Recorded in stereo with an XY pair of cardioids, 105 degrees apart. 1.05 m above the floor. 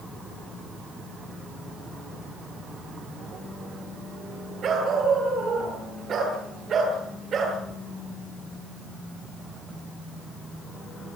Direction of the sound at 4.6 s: 60° right.